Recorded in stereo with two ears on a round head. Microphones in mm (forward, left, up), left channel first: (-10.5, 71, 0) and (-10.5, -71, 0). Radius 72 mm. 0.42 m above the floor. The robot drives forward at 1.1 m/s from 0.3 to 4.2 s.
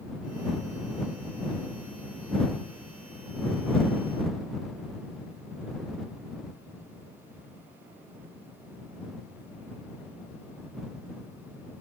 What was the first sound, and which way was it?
Only background noise.